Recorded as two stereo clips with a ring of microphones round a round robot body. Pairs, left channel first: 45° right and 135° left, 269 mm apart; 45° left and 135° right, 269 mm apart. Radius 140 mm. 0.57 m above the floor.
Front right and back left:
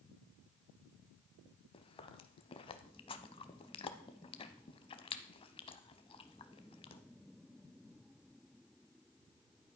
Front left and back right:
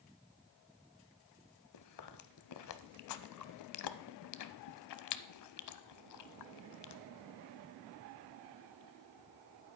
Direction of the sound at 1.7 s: 25° left.